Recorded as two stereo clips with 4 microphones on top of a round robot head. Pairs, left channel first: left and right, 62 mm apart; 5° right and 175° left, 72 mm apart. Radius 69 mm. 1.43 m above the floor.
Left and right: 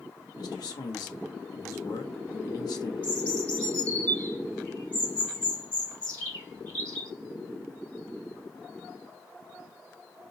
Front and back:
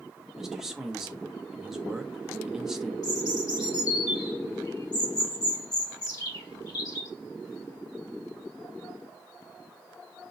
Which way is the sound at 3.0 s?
25° left.